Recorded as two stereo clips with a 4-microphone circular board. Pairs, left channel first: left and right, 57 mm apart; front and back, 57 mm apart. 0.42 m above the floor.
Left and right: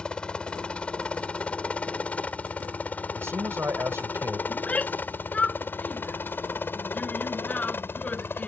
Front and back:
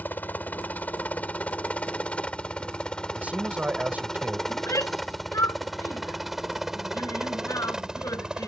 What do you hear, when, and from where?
0.0 s a helicopter: 25° left; by 8.5 s 110° left
3.1 s a man speaking: 125° right
4.5 s a shout: 25° left